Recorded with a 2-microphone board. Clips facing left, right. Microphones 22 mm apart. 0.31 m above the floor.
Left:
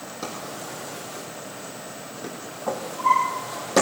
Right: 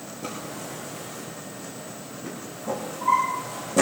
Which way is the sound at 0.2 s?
80° left.